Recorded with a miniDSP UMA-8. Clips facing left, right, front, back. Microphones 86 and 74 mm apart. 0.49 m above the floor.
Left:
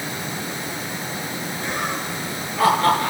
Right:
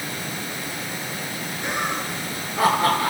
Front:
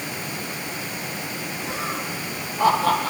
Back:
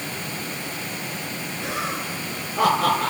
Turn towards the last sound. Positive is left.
turn(degrees=-165)